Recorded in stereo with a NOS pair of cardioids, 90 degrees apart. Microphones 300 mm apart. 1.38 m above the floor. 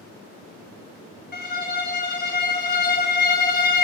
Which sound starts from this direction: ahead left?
A violin, at 1.3 s.